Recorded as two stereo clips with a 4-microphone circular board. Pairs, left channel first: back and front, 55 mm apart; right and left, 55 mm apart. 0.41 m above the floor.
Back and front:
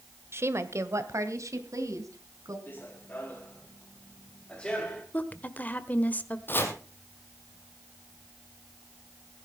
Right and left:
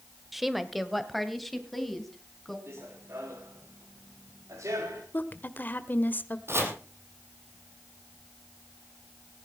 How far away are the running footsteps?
About 3.5 m.